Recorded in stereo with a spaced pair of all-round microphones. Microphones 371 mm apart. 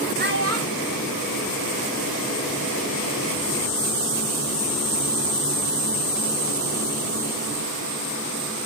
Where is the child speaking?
25° right (ahead or behind), 1.9 m; by 2.4 s 65° right (ahead or behind), 3 m.